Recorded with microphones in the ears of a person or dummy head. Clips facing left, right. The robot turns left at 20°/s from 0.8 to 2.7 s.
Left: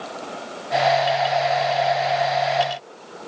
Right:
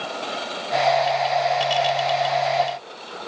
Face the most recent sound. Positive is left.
No sound to turn to.